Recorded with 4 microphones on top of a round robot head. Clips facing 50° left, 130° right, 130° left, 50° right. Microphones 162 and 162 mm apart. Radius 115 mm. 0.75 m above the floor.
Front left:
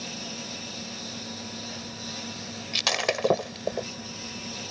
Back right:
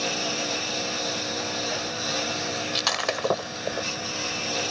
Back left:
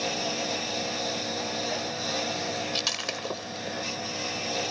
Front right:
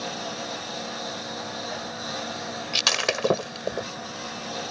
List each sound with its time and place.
0.0 s a lawn mower: 155° right
2.7 s breaking glass: 20° right